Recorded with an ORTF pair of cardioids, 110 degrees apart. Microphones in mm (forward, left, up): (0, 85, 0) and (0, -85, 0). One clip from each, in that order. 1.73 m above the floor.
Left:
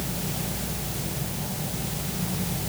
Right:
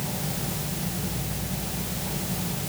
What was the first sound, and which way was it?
Only background noise.